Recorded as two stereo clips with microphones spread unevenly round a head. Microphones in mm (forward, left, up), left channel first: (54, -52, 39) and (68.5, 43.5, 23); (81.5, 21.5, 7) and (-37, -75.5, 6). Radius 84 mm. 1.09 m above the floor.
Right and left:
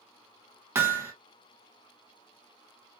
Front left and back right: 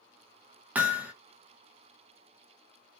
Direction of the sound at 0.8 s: 140° left.